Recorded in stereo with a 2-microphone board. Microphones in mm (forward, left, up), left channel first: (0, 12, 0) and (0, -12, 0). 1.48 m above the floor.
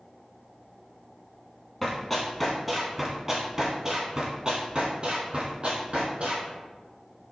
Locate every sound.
1.8 s running footsteps: 15° left (ahead or behind), 1.6 m; by 6.5 s 45° right (ahead or behind), 2 m